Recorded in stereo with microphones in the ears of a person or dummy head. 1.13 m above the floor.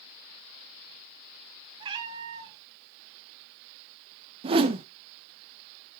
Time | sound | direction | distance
1.8 | a cat meowing | 20° right (ahead or behind) | 1.6 m
4.4 | a whoosh | 25° right (ahead or behind) | 0.6 m